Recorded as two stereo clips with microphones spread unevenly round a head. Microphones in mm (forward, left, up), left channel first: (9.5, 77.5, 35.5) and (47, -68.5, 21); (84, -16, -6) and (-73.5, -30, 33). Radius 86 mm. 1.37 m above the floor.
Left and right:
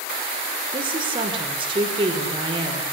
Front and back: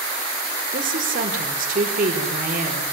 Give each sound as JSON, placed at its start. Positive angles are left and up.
{"t": 0.7, "sound": "a woman speaking", "azimuth_deg": -135, "distance_m": 5.5}